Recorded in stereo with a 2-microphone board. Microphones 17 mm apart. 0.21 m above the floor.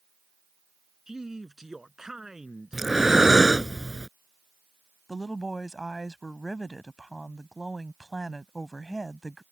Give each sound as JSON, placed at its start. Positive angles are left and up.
{"t": 1.1, "sound": "a man speaking", "side_deg": -35}
{"t": 2.7, "sound": "breathing", "side_deg": -20}
{"t": 5.1, "sound": "a woman speaking", "side_deg": 20}